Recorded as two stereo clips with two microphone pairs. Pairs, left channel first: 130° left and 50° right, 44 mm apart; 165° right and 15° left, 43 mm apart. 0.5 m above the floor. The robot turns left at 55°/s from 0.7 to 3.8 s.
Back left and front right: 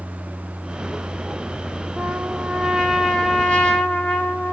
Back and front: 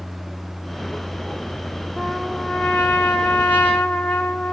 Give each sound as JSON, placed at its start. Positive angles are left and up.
{"t": 2.0, "sound": "a trumpet", "azimuth_deg": -85, "distance_m": 0.9}